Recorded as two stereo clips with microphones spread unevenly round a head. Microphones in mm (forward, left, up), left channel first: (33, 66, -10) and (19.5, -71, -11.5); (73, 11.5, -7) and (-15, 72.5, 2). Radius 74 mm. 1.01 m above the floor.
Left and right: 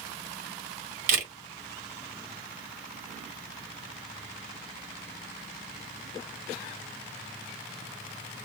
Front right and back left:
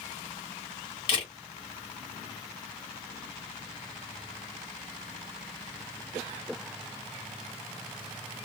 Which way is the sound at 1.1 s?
95° right.